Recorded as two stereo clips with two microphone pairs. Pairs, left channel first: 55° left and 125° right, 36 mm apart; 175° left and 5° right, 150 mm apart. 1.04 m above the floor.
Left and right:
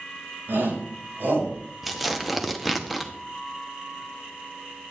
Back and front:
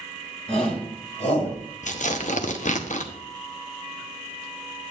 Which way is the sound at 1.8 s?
150° left.